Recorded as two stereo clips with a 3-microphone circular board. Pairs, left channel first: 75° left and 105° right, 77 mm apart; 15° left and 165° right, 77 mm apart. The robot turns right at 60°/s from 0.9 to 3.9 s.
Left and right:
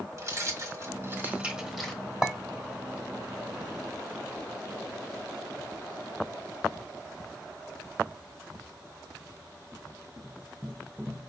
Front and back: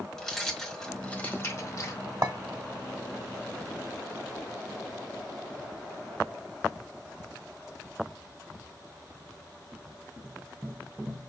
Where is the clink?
175° left, 0.9 m; by 2.3 s straight behind, 0.9 m.